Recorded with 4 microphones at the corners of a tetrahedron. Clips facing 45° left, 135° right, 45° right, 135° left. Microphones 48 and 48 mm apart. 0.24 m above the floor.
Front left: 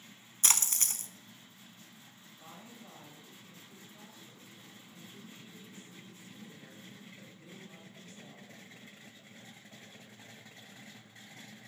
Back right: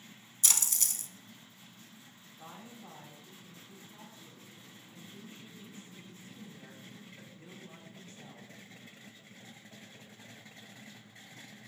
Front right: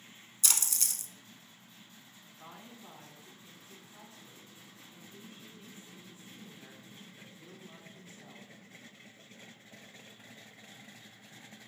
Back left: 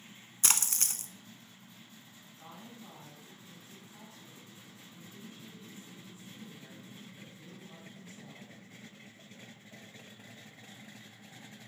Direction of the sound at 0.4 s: 90° left.